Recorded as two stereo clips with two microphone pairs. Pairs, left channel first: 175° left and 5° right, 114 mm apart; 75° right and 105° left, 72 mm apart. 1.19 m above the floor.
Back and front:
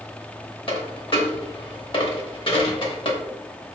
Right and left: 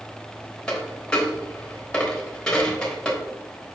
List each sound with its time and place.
0.7 s a dropped coin: 155° right, 0.9 m